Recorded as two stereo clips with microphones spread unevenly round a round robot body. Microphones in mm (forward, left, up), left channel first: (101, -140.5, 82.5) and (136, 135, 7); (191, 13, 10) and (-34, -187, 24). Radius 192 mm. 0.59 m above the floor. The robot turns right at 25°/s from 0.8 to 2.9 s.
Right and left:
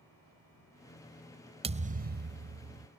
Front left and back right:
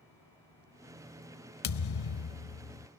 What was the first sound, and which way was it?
A thud, 5° left.